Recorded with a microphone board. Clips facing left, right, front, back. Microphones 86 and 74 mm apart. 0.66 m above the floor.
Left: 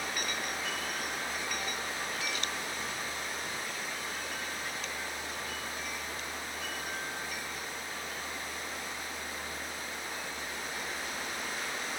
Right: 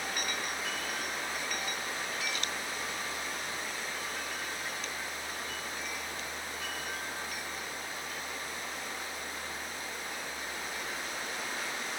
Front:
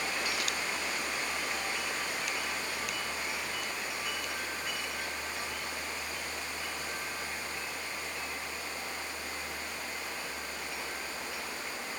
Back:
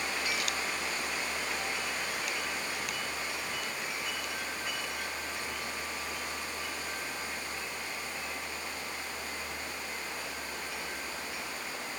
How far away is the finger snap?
No finger snap in this recording.